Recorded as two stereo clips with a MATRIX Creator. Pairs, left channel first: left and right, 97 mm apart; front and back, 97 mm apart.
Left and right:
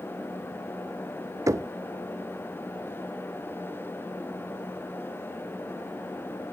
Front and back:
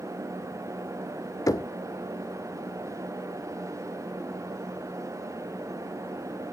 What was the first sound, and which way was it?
Knocking, 40° right.